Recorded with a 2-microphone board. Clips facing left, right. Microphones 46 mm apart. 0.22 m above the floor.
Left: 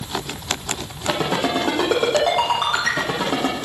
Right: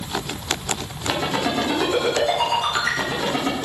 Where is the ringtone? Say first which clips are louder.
Left 2 dB; 65° left (ahead or behind), 4.5 m.